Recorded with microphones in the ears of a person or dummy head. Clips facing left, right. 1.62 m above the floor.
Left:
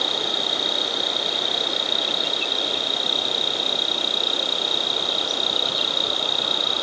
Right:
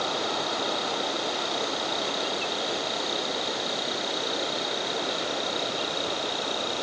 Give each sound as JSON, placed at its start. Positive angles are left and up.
{"t": 0.0, "sound": "an insect", "side_deg": 85}